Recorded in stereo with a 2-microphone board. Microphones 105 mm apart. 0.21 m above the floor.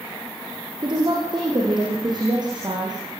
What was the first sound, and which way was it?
A woman speaking, 45° right (ahead or behind).